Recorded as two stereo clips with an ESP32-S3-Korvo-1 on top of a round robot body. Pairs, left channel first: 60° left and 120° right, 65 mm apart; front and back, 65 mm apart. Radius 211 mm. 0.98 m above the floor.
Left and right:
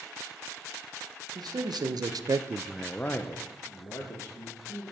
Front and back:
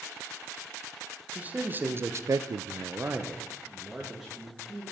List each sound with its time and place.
1.4 s a man speaking: 110° right, 1.2 m; by 4.8 s 95° left, 2 m